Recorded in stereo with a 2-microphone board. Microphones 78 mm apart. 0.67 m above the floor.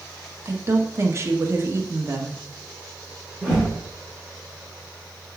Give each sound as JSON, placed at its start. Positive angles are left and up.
{"t": 0.5, "sound": "a woman speaking", "side_deg": -35, "distance_m": 1.4}
{"t": 3.4, "sound": "a whoosh", "side_deg": -5, "distance_m": 4.5}